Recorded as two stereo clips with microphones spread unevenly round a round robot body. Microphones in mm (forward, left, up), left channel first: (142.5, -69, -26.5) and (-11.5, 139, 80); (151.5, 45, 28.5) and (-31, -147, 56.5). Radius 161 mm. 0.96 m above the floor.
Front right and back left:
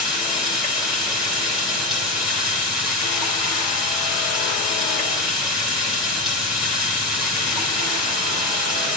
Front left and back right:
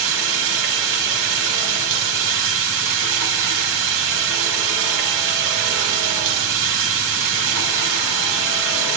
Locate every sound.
0.0 s running water: 145° right, 2.5 m